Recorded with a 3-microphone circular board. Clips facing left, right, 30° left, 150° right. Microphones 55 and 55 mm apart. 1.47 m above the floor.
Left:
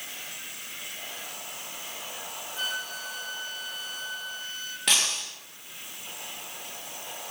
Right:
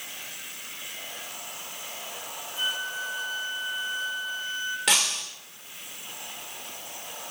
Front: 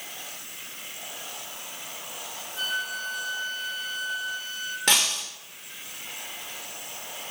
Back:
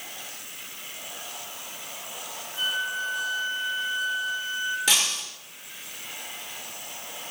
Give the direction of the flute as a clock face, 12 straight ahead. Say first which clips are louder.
Right 3 dB, back 2 dB; 4 o'clock.